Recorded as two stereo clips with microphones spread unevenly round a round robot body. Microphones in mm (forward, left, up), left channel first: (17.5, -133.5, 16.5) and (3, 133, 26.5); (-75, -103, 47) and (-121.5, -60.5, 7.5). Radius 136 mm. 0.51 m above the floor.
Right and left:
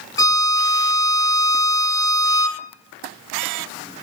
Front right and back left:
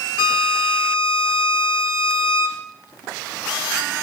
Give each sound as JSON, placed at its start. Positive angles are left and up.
{"t": 0.2, "sound": "a violin", "azimuth_deg": -15, "distance_m": 1.7}